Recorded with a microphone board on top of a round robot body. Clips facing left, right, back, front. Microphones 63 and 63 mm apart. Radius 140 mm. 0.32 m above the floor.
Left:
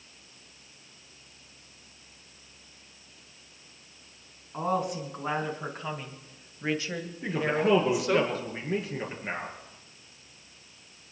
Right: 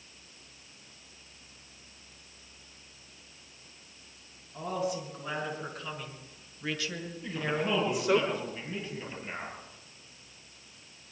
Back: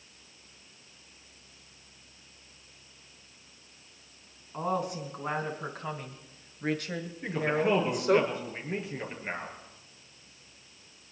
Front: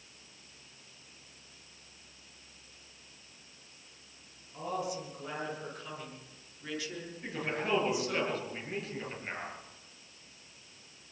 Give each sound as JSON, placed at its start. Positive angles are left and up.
{"t": 4.5, "sound": "a woman speaking", "azimuth_deg": 130, "distance_m": 4.5}
{"t": 7.2, "sound": "a man speaking", "azimuth_deg": 110, "distance_m": 7.0}